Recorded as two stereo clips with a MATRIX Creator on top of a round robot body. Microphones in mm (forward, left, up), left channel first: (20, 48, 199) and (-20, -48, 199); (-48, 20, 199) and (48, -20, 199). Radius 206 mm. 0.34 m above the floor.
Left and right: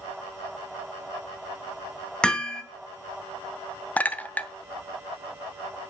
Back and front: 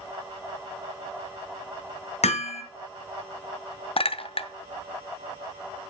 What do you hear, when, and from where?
2.2 s hammering: 150° left, 2.5 m
4.0 s a clink: 140° left, 1.1 m